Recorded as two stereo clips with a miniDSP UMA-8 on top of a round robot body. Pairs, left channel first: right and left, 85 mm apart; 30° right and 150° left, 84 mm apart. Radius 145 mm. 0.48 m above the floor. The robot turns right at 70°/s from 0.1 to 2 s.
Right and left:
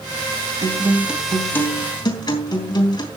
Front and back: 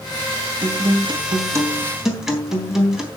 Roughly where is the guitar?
Behind left.